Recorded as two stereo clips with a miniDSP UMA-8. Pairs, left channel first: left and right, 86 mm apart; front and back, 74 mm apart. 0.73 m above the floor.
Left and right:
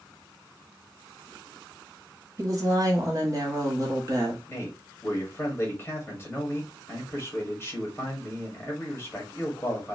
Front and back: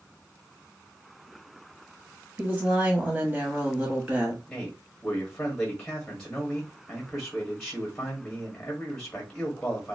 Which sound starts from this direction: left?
A man speaking, at 4.5 s.